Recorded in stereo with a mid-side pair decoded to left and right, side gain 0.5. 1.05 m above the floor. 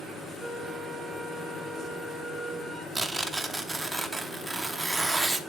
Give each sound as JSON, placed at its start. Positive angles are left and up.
{"t": 0.4, "sound": "a flute", "azimuth_deg": 5, "distance_m": 6.0}
{"t": 3.0, "sound": "tearing paper", "azimuth_deg": -10, "distance_m": 0.9}